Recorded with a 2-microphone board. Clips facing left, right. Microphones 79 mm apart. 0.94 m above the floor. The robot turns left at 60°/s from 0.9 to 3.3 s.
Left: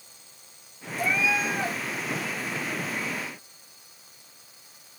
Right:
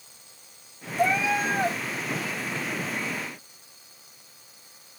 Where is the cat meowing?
95° right, 1.0 m; by 1.8 s 140° right, 1.0 m.